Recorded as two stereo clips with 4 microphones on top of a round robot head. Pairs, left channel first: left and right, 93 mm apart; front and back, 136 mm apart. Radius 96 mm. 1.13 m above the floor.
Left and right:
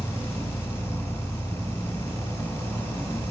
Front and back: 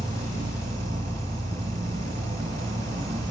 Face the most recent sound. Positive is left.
turn(degrees=180)